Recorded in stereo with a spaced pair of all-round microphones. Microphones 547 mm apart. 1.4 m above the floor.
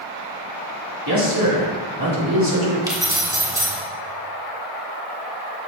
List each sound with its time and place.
1.1 s a man speaking: 35° right (ahead or behind), 4.5 m
2.9 s keys jangling: 5° right (ahead or behind), 2.5 m